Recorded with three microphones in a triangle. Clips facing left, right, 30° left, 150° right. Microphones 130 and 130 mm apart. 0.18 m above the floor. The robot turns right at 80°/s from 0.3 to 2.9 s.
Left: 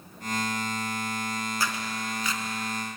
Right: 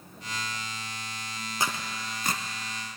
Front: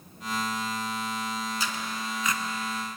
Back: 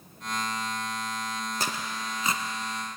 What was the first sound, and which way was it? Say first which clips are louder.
Tearing paper: left 1 dB, even; 155° right.